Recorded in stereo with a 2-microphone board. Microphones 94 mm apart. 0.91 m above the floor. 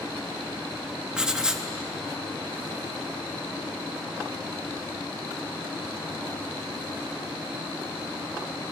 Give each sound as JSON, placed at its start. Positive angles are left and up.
{"t": 1.1, "sound": "writing", "side_deg": -10, "distance_m": 1.1}